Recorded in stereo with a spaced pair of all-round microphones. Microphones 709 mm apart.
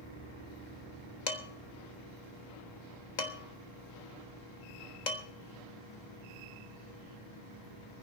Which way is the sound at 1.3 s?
80° left.